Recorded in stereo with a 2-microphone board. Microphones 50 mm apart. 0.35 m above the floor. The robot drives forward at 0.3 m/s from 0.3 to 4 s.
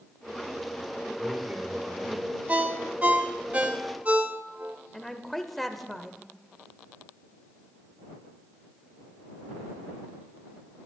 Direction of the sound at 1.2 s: 30° right (ahead or behind).